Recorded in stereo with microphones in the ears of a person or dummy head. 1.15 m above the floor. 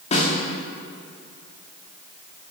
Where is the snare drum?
35° left (ahead or behind), 3 m.